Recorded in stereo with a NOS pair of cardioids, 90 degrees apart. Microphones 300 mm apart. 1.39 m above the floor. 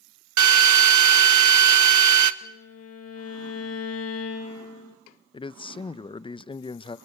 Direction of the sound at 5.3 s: 15° left.